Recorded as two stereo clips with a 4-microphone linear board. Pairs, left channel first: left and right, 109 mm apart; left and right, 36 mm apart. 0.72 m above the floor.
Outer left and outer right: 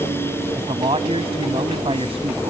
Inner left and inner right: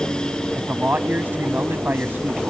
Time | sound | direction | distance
0.6 | a man speaking | 60° right (ahead or behind) | ?